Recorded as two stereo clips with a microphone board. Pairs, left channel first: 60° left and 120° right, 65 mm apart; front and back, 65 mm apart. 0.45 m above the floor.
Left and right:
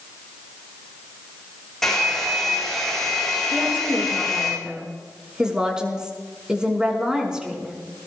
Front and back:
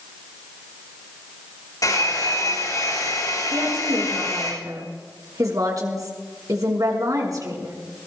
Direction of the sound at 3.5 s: 165° left.